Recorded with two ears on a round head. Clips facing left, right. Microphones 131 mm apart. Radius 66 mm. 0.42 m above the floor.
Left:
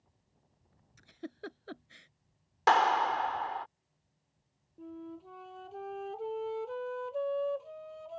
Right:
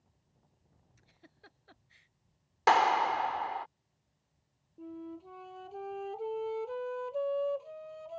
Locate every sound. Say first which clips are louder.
1.0 s a giggle: left 18 dB; 65° left (ahead or behind)
2.7 s a clap: even; 5° right (ahead or behind)
4.8 s a flute: right 1 dB; centre (ahead or behind)